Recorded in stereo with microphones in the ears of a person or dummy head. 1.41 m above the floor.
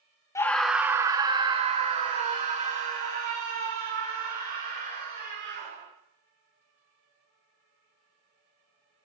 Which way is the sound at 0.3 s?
15° left (ahead or behind).